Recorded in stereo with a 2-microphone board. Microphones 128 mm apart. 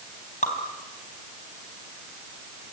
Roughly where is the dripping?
Left.